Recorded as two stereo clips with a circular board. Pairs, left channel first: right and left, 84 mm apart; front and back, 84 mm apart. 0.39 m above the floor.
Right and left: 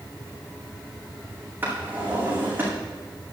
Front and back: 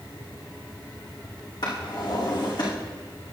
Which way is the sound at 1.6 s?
25° left.